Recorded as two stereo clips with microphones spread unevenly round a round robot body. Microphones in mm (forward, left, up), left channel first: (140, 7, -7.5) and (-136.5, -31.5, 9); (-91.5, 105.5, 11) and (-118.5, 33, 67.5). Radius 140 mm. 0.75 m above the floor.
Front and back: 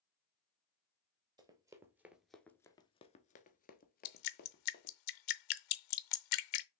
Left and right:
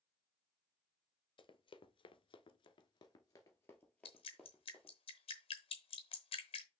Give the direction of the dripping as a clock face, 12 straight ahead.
12 o'clock.